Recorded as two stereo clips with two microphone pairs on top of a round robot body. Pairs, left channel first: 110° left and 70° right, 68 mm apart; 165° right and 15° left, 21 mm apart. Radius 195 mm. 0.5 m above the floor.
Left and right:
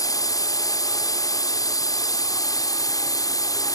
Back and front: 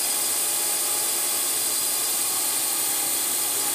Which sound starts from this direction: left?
A drone, at 0.0 s.